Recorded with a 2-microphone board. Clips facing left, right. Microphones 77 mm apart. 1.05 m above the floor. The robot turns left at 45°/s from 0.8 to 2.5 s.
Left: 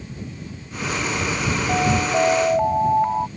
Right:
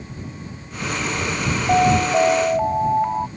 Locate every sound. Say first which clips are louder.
1.7 s an alarm: right 5 dB; 150° right; by 3.3 s 175° left